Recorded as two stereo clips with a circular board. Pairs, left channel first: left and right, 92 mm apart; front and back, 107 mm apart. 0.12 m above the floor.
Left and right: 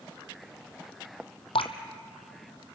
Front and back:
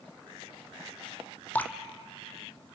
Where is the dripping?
75° left, 1.0 m.